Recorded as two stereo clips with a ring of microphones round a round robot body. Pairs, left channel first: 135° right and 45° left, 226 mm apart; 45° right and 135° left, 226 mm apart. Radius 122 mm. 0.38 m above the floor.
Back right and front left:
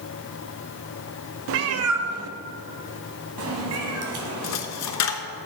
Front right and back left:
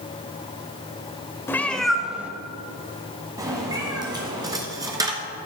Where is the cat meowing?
35° left, 0.6 m; by 4.6 s 65° left, 2 m.